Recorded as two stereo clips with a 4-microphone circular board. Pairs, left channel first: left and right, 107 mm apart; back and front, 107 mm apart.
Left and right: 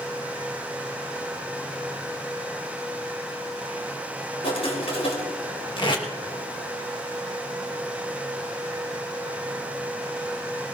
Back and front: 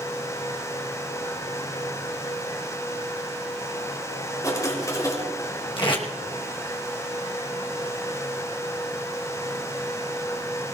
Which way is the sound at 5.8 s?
135° left.